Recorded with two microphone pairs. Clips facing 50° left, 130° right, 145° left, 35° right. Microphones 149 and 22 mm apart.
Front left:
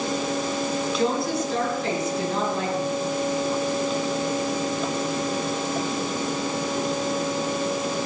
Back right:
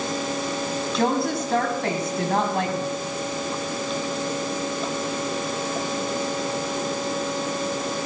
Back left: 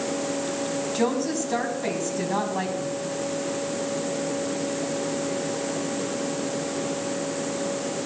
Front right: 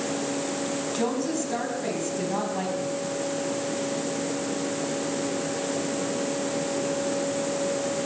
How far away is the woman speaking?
About 3 m.